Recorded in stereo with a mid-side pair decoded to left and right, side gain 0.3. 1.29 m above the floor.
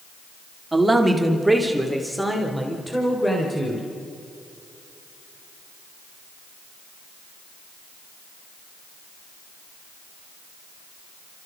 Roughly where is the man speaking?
Ahead right.